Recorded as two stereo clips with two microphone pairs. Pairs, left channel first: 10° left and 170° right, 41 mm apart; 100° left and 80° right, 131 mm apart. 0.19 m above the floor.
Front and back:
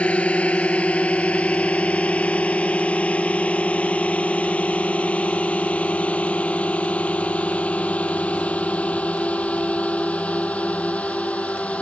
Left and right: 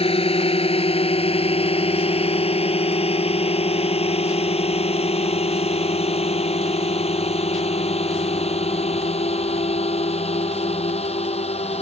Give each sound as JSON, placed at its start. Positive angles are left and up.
{"t": 0.0, "sound": "a drone", "azimuth_deg": 60}